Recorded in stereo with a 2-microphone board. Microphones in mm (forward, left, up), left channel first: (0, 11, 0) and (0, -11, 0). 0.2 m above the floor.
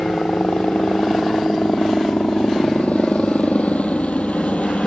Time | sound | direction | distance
0.0 | a helicopter | 70° left (ahead or behind) | ?